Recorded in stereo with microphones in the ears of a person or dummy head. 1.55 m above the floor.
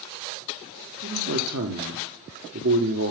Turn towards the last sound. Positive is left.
turn(degrees=-65)  # may be behind; listen again after turning